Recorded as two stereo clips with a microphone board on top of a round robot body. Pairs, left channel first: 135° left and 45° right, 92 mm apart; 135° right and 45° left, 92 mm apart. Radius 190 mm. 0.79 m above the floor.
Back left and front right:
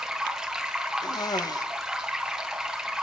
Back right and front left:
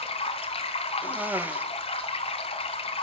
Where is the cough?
110° left, 1.2 m.